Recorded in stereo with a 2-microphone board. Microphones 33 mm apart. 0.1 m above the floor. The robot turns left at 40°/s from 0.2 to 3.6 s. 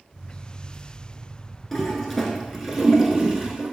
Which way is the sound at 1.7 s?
15° left (ahead or behind).